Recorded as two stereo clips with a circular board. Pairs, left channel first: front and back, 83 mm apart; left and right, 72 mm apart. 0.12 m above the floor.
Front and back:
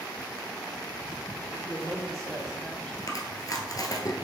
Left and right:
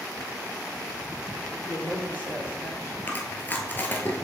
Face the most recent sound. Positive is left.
turn(degrees=30)